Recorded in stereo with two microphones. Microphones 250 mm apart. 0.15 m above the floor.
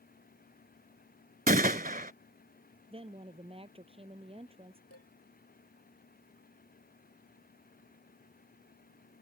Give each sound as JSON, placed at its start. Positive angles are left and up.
{"t": 1.5, "sound": "a gunshot", "side_deg": -35}
{"t": 2.9, "sound": "a woman speaking", "side_deg": -20}
{"t": 4.9, "sound": "dishes clattering", "side_deg": 65}